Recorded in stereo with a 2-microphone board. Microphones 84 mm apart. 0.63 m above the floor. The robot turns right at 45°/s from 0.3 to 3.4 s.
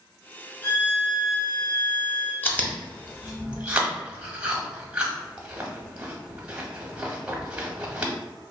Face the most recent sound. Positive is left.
turn(degrees=-15)  # may be behind; listen again after turning